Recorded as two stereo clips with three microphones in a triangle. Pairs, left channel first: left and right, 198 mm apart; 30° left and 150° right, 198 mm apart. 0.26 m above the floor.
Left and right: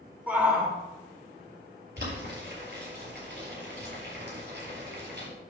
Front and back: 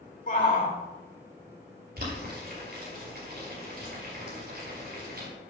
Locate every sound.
0.3 s a shout: 10° right, 2.5 m
2.0 s boiling: 115° right, 5 m